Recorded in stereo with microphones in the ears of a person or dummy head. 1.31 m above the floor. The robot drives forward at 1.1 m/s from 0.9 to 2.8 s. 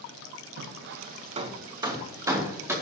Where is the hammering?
60° right (ahead or behind), 0.6 m; by 2.7 s 10° right (ahead or behind), 2.5 m.